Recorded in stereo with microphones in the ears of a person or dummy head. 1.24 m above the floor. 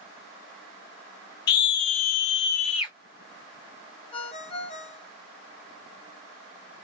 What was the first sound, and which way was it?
A scream, 60° left (ahead or behind).